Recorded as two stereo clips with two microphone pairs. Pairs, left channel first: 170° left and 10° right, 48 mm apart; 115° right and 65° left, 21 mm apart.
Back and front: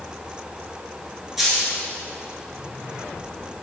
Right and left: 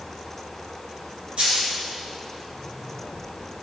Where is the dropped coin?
75° left, 2 m.